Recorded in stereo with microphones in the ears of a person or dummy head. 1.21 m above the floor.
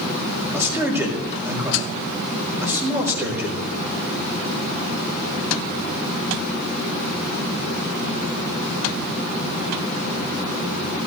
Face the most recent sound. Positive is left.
turn(degrees=-20)  # may be behind; listen again after turning